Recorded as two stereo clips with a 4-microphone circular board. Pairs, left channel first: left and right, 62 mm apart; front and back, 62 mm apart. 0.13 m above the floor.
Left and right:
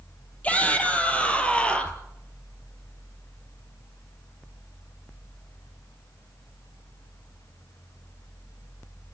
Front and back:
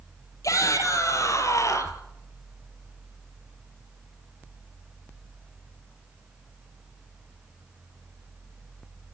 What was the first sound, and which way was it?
A shout, 25° left.